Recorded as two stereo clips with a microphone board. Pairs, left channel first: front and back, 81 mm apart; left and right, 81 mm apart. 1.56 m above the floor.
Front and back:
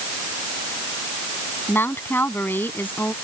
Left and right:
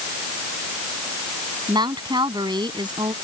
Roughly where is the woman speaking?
Ahead right.